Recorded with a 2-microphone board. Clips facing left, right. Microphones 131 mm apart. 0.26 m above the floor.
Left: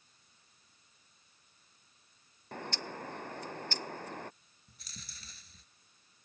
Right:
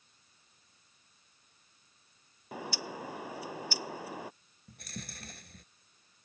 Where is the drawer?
No drawer in this recording.